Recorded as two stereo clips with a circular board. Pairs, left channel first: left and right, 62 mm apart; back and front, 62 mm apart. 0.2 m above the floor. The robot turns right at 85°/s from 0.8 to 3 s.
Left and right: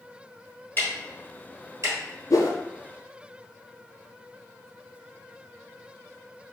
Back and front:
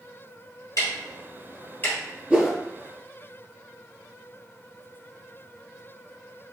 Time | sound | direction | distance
0.8 | ticking | 150° left | 1.6 m
2.3 | a whoosh | 70° left | 0.7 m